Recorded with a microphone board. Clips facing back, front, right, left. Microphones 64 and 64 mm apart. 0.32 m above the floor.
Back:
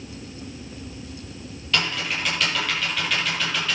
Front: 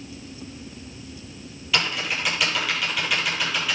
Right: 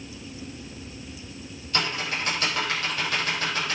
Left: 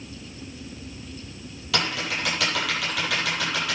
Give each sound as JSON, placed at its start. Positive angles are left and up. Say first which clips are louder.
{"t": 1.7, "sound": "typing on a keyboard", "louder": "even, left 1 dB", "azimuth_deg": 85, "distance_m": 7.5}